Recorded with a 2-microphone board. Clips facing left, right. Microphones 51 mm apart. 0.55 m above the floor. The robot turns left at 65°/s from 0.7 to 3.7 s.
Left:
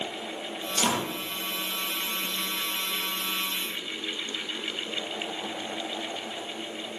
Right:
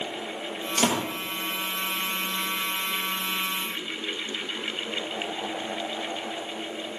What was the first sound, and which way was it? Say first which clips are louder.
A door slam: right 2 dB; 60° right (ahead or behind).